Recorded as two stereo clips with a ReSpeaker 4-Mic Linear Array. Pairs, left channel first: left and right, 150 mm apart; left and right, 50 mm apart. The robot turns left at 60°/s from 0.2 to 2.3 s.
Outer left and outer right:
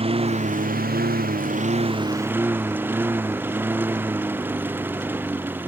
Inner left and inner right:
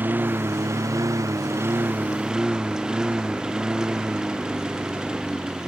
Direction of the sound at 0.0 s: 40° right (ahead or behind).